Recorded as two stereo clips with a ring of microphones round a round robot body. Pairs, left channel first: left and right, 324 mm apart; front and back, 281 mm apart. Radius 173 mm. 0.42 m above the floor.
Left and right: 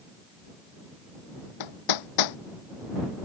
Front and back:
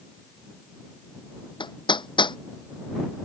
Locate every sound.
1.6 s hammering: 75° left